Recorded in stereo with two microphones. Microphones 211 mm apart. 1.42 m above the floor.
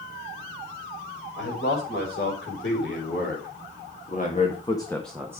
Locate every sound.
1.4 s a man speaking: 75° left (ahead or behind), 5.5 m; by 5.4 s 15° right (ahead or behind), 1.5 m